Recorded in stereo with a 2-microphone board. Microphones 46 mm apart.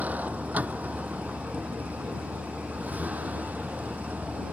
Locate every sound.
0.0 s a vehicle: 35° right (ahead or behind)